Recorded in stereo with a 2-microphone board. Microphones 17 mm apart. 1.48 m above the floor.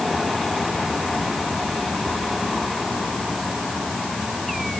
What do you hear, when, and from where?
Only background noise.